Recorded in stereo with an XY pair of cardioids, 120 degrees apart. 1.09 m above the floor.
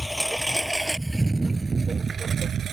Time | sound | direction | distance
0.0 | a lawn mower | straight ahead | ?